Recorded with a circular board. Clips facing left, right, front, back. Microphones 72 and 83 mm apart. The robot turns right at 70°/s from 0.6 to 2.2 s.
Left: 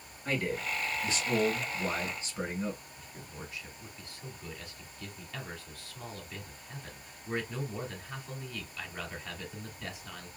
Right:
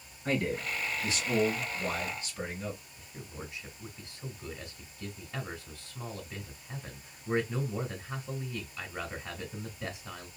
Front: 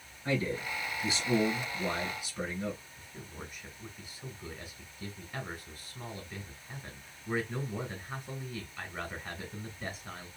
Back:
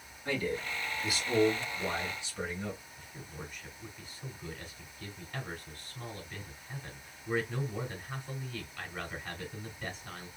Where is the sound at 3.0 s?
65° right, 1.3 m.